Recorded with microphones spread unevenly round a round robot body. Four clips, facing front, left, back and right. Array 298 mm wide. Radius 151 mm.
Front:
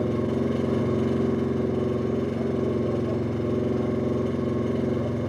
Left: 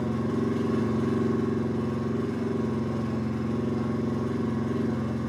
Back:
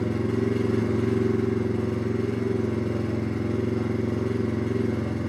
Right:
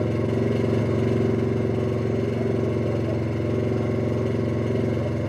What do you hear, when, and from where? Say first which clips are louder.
0.0 s an engine running: right 4 dB, front 1 dB; 60° right, 1.8 m